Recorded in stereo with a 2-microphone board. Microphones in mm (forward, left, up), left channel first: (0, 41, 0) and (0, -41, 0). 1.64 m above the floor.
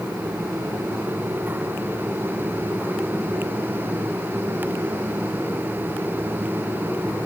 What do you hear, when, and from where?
Only background noise.